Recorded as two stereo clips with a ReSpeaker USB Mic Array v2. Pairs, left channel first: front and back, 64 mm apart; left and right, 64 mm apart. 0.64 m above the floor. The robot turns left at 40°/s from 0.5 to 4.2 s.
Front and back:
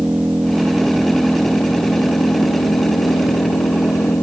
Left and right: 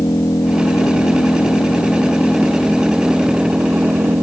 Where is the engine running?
105° left; by 4.2 s 40° right.